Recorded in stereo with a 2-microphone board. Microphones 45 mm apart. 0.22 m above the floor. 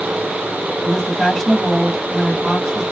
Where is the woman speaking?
10° left (ahead or behind), 1.3 m.